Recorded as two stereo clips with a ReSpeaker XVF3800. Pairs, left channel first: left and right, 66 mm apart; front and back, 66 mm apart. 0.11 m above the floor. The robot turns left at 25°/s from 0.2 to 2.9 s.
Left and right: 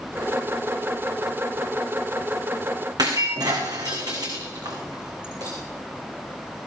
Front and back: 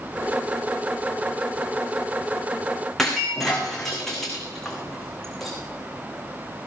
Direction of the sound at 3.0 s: 85° right.